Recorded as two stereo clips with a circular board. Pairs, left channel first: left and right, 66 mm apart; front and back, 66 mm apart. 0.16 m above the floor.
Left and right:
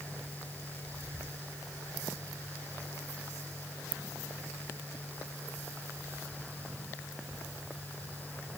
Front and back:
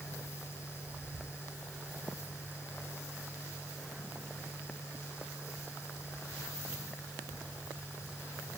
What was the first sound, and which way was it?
Only background noise.